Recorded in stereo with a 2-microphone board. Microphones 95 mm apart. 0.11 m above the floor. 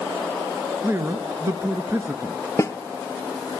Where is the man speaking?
25° right (ahead or behind), 1.2 m.